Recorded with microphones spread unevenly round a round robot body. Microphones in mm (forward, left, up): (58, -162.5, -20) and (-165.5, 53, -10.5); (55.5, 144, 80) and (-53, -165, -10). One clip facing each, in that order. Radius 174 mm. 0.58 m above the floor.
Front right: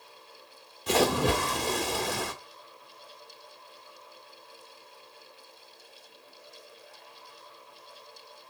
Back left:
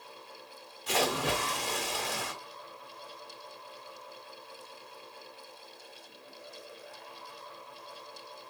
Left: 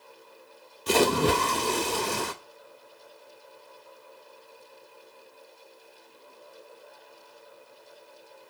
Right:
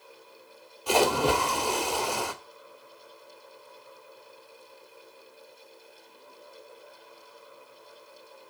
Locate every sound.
0.9 s a splash: straight ahead, 1.2 m